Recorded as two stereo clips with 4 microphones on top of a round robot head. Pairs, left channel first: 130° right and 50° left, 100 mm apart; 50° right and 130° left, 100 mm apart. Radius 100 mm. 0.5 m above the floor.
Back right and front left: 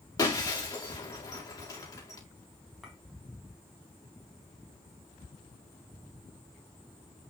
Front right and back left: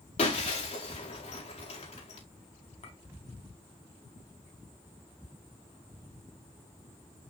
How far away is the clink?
About 3.5 m.